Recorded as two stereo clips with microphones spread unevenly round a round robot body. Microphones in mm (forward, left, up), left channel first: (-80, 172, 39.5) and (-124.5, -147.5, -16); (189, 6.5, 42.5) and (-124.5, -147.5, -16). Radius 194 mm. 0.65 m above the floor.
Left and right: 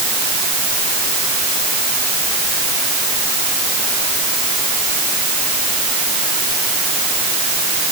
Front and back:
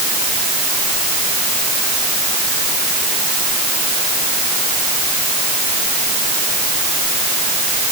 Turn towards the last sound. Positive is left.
No sound to turn to.